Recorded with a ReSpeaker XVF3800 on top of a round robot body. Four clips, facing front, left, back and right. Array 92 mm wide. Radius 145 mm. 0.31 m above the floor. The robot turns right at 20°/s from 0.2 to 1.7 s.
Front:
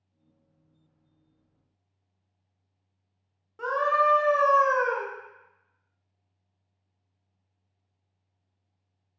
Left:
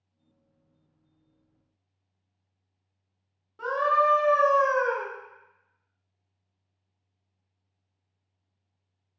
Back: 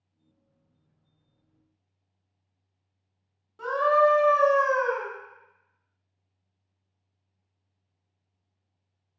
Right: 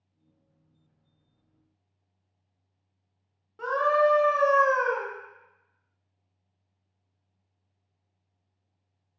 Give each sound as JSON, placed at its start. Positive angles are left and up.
{"t": 3.6, "sound": "a scream", "azimuth_deg": -15, "distance_m": 1.0}